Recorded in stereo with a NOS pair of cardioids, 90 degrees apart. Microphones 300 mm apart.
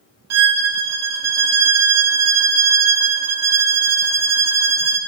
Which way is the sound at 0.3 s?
60° right.